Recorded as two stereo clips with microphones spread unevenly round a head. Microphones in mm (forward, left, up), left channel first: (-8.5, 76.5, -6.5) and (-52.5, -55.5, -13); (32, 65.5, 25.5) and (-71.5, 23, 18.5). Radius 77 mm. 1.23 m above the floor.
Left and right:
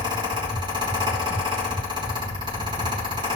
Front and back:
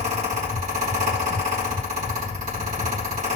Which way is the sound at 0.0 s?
165° right.